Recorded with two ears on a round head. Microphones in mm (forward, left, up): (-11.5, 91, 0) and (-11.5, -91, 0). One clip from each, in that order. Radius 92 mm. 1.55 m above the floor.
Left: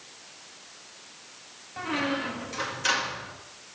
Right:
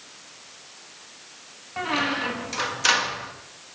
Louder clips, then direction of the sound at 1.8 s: Right 4 dB; 30° right (ahead or behind).